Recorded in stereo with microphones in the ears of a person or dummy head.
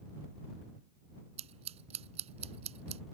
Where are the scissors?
35° right (ahead or behind).